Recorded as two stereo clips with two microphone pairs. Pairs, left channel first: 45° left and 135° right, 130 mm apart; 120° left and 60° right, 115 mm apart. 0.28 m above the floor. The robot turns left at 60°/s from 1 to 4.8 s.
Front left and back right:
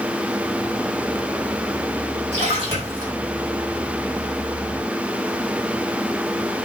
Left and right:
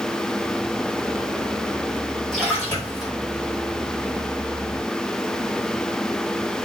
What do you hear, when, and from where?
2.3 s a splash: 150° right, 3 m; by 3.1 s 160° left, 3 m